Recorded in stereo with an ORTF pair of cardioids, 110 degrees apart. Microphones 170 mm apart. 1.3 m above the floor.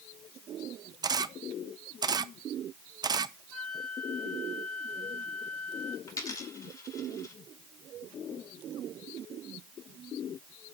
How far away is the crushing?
I don't hear crushing.